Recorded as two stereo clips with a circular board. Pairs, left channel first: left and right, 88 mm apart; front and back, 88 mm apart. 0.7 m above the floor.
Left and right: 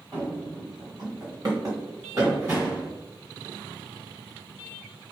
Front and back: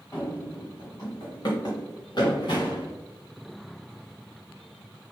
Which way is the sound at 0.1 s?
55° right.